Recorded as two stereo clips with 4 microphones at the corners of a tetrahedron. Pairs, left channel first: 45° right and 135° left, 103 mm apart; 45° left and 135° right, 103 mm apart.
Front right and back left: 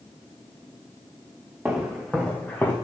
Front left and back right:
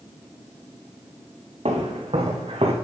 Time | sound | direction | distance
1.6 | footsteps | 145° right | 2.5 m